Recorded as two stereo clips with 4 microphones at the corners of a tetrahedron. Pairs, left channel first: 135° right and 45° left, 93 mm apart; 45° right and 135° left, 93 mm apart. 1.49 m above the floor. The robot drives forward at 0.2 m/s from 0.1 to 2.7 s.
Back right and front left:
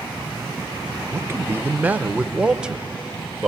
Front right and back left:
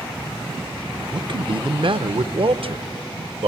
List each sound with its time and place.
1.1 s a man speaking: 105° left, 0.7 m; by 3.5 s 125° left, 0.9 m